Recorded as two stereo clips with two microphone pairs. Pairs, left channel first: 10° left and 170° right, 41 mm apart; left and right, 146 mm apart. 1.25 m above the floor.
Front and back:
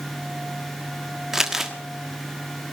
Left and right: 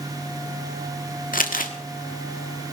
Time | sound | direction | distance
1.3 | crumpling | 110° left | 1.5 m